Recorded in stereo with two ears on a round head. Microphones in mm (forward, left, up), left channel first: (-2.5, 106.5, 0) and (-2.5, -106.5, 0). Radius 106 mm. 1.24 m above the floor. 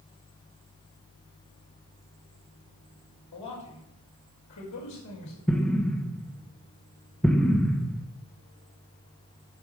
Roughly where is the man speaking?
Left.